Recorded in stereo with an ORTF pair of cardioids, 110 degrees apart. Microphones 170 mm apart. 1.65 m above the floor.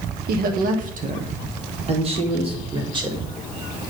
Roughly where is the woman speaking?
Ahead right.